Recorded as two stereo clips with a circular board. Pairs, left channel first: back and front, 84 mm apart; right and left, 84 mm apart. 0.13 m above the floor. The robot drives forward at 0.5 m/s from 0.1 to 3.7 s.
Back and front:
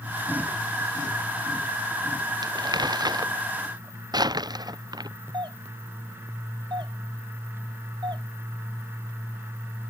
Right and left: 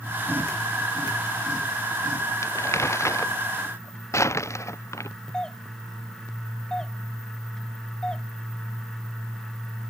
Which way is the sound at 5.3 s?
10° right.